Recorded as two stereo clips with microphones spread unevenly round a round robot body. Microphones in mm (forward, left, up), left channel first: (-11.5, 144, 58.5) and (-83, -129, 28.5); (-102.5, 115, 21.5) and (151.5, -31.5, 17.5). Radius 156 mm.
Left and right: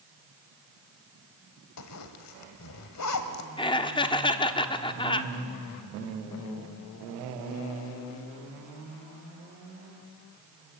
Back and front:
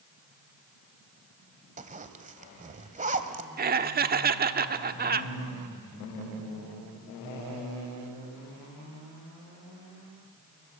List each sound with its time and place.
1.8 s a zipper: 35° left, 1.3 m
3.6 s laughter: 5° left, 1.0 m